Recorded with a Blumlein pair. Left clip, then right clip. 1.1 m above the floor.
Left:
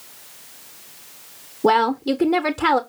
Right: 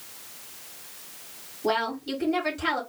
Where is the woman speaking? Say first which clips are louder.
Left 9 dB; 40° left, 0.5 m.